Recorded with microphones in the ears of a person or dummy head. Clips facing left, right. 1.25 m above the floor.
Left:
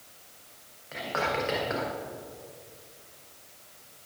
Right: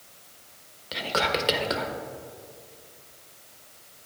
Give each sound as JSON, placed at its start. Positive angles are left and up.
{"t": 0.9, "sound": "whispering", "side_deg": -50, "distance_m": 1.2}